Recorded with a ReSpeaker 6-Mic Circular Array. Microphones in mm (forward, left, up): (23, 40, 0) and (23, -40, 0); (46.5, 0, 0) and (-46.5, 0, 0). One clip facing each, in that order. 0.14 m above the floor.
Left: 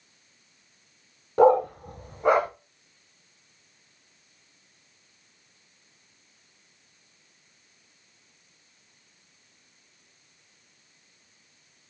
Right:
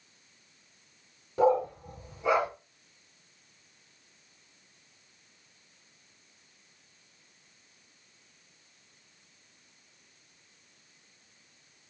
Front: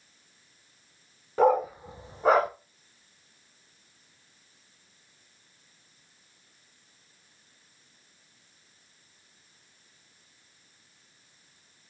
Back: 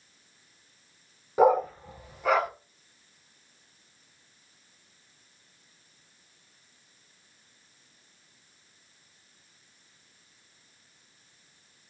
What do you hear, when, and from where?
1.4 s a dog barking: 100° left, 0.7 m; by 2.5 s 50° left, 1.2 m